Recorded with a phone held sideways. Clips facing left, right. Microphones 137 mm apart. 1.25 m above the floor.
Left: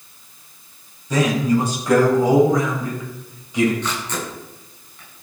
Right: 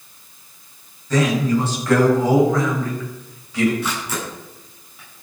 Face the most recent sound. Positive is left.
turn(degrees=-5)  # may be behind; listen again after turning